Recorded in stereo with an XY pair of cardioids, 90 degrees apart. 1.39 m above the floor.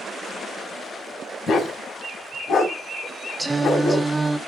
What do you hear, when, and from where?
1.5 s a dog barking: 65° left, 3.5 m
3.4 s singing: 15° right, 1.1 m